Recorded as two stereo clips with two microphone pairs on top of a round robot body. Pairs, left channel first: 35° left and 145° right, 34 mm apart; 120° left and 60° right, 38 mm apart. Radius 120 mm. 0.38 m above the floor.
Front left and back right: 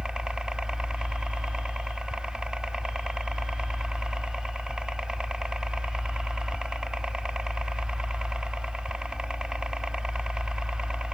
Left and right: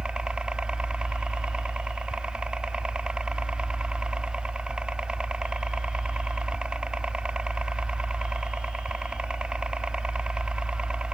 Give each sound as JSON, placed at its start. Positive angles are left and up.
{"t": 0.0, "sound": "a helicopter", "azimuth_deg": -50}